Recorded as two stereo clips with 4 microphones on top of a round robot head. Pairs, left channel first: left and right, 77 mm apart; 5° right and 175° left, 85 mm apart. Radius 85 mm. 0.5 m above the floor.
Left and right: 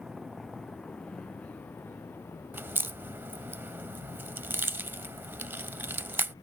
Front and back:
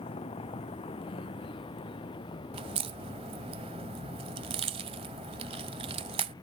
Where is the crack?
150° right.